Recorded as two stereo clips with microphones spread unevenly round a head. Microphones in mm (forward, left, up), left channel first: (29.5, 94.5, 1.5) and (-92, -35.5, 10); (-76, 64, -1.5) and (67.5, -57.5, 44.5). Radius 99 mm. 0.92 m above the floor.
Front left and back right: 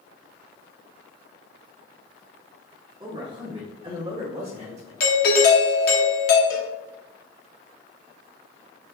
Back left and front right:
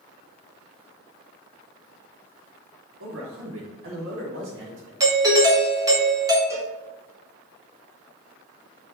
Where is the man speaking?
60° right, 1.6 m; by 4.9 s 70° right, 2.5 m.